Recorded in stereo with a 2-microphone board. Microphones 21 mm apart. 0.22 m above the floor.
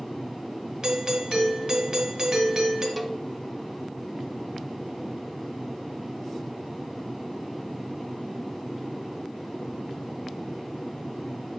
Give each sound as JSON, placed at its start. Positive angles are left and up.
{"t": 0.8, "sound": "a doorbell", "side_deg": -20, "distance_m": 1.6}
{"t": 3.0, "sound": "a cowbell", "side_deg": 5, "distance_m": 0.5}